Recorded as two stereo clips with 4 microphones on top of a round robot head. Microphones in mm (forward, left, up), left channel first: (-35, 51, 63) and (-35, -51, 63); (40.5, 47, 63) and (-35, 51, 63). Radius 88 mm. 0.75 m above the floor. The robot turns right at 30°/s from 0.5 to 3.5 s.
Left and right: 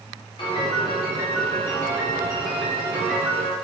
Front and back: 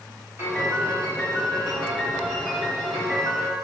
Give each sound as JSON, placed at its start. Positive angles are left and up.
{"t": 0.4, "sound": "a piano", "azimuth_deg": 125, "distance_m": 1.5}